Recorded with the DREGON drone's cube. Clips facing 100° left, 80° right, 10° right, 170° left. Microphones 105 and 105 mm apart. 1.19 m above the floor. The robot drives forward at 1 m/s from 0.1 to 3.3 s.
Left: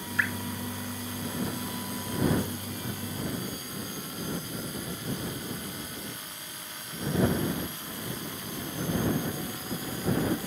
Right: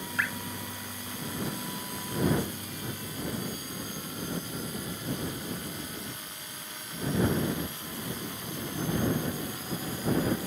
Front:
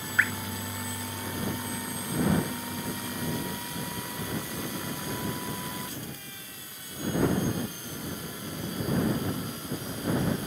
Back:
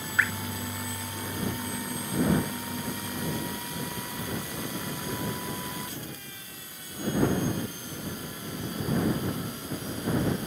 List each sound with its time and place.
0.2 s dripping: 105° right, 1.6 m; by 0.3 s 115° right, 1.6 m